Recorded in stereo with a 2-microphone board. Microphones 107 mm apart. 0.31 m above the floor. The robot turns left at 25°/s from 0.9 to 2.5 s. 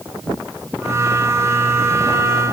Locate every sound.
Only background noise.